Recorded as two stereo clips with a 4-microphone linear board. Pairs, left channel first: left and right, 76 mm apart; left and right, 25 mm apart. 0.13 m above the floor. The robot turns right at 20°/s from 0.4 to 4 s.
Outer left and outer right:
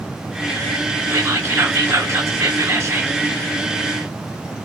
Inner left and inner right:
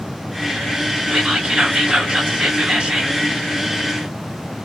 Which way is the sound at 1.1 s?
125° right.